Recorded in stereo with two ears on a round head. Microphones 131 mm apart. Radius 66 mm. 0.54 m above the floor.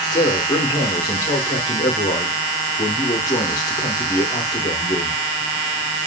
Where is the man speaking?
25° left (ahead or behind), 0.7 m.